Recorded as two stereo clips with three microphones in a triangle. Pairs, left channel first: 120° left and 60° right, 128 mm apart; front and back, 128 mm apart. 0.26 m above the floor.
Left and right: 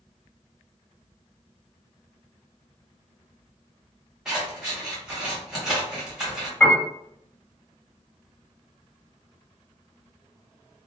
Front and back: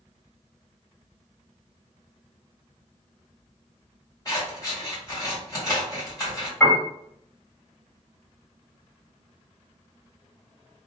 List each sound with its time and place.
4.2 s scissors: 20° left, 1.4 m
6.6 s a piano: 55° left, 1.7 m